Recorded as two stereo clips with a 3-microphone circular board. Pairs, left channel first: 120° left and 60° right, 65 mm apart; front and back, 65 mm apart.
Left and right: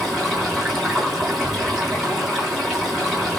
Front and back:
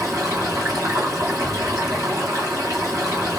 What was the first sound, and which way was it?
Running water, 145° right.